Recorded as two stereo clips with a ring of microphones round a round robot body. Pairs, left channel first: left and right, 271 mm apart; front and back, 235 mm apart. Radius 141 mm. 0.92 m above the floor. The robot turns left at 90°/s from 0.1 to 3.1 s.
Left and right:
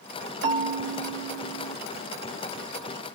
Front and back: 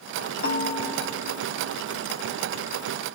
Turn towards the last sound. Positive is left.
turn(degrees=70)